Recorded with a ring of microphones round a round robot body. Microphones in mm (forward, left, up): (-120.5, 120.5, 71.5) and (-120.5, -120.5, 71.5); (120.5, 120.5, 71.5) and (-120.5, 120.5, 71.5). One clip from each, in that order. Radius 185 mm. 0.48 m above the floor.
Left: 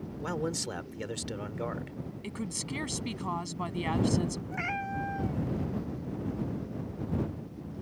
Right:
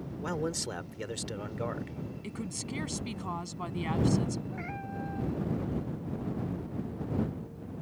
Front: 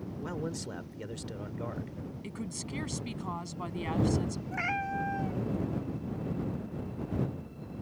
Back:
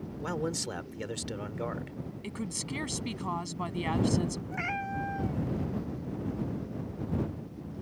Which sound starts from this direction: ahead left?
A cat meowing, at 4.5 s.